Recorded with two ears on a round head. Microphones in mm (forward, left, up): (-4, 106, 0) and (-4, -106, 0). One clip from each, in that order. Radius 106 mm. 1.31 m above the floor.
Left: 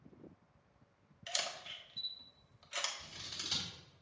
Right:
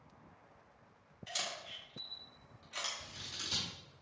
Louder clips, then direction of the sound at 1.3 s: Left 1 dB; 70° left (ahead or behind).